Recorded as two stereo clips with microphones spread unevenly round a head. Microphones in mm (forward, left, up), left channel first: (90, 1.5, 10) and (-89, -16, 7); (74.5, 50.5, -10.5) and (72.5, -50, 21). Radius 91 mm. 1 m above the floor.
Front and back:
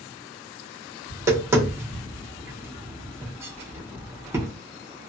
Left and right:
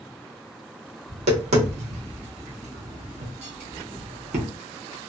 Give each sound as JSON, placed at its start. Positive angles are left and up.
{"t": 1.1, "sound": "tapping", "azimuth_deg": -100, "distance_m": 0.9}